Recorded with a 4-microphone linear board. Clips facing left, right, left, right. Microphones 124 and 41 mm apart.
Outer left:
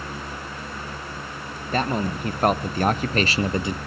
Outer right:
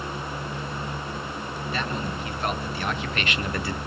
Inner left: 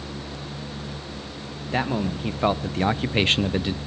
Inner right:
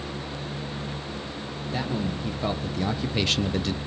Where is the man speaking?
45° left (ahead or behind), 1.5 m; by 3.8 s 15° left (ahead or behind), 0.6 m.